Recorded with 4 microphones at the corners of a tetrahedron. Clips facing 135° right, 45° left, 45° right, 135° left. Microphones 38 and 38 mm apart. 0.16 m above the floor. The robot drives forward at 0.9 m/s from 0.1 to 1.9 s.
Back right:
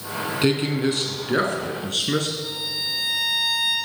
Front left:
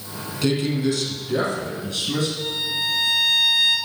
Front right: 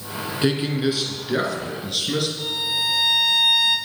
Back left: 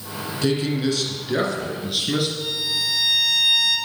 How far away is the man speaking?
About 1.7 m.